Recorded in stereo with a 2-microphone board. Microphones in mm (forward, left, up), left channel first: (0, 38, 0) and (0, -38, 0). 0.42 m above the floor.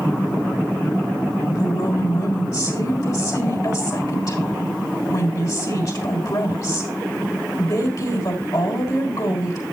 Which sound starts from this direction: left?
A woman speaking, at 1.5 s.